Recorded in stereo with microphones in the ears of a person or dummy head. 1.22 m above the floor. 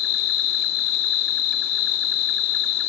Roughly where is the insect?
Left.